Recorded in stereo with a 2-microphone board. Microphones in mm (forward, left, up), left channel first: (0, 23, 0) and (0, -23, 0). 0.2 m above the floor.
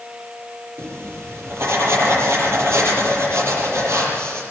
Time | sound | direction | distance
0.8 | writing | 70° right (ahead or behind) | 7 m